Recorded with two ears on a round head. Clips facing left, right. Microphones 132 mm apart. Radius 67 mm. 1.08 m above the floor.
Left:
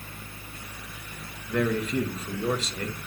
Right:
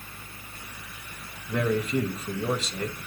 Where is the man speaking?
5° right (ahead or behind), 1.1 m.